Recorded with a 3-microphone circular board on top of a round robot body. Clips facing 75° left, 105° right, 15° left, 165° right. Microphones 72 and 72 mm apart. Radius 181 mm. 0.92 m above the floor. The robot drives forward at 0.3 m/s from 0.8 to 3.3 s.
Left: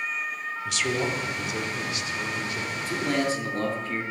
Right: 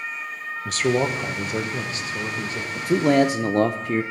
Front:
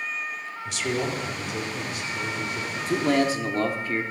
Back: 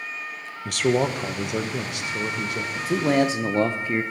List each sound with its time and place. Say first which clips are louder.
0.7 s a man speaking: right 6 dB, back 6 dB; 145° right, 0.9 m; by 2.6 s 160° right, 1.4 m
2.8 s a man speaking: right 10 dB, back 2 dB; 80° right, 0.6 m; by 4.0 s 100° right, 0.6 m